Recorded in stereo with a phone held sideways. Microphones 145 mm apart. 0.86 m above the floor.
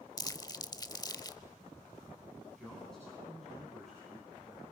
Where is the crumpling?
25° left (ahead or behind), 0.7 m.